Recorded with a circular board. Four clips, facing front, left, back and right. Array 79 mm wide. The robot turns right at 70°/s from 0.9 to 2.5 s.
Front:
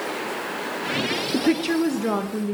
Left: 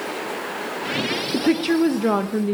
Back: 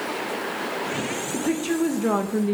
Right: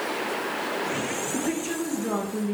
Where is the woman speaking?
40° left, 0.7 m; by 2.5 s 125° left, 0.7 m.